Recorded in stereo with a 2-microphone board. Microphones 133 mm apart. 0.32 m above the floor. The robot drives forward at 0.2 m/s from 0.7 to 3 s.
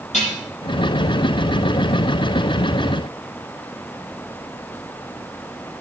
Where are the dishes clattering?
60° left (ahead or behind), 6 m.